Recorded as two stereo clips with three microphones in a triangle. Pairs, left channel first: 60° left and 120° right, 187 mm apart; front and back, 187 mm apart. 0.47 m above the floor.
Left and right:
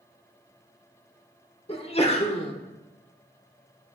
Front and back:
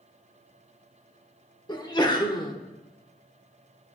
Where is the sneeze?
45° left, 0.9 m.